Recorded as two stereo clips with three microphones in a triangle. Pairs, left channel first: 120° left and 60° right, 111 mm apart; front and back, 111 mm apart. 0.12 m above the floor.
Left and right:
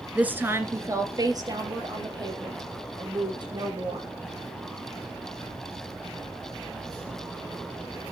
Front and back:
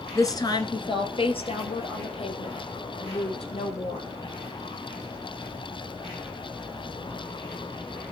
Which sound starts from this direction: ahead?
A woman speaking, at 0.1 s.